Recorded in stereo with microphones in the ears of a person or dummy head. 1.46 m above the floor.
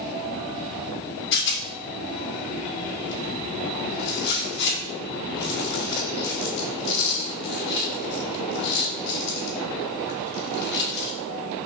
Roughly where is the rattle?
Left.